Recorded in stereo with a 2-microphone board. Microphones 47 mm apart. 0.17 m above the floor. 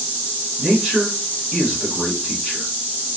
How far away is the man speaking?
About 1.6 m.